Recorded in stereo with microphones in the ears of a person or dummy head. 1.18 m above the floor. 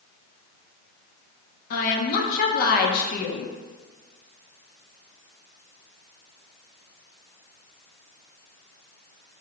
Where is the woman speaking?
50° left (ahead or behind), 0.6 m.